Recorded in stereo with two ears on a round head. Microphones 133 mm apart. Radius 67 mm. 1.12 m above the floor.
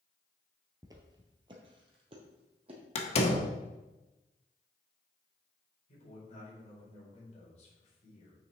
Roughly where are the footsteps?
Right.